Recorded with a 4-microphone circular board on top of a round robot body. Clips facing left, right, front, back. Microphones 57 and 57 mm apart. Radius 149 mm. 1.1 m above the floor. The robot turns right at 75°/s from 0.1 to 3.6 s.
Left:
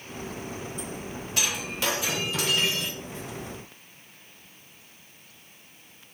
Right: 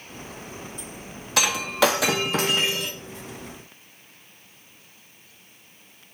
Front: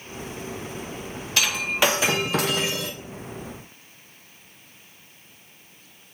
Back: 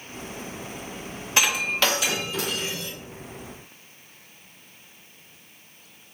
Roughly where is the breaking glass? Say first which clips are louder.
Right 10 dB, even; right.